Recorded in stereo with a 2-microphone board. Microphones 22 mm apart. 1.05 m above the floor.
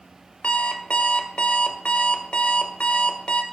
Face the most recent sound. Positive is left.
turn(degrees=65)  # may be behind; listen again after turning